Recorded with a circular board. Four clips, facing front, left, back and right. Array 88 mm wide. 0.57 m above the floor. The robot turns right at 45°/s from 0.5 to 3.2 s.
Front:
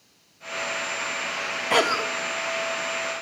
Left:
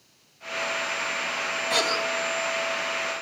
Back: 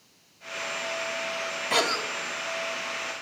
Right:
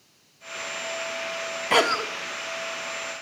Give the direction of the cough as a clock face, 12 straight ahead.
2 o'clock.